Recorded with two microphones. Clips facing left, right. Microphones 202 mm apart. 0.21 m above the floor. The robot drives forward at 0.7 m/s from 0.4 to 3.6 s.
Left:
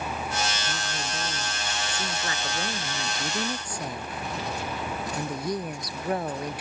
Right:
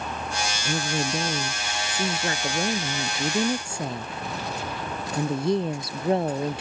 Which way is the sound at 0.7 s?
50° right (ahead or behind).